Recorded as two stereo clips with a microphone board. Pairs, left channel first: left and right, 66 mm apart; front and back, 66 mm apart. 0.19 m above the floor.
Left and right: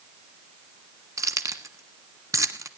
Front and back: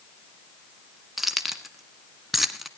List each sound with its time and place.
1.2 s keys jangling: 90° right, 1.3 m